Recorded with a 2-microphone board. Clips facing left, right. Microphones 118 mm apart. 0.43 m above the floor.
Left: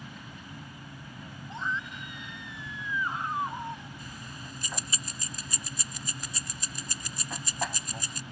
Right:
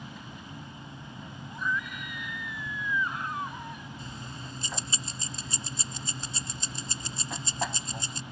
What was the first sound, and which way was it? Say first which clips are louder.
An aircraft: right 2 dB; 5° right (ahead or behind).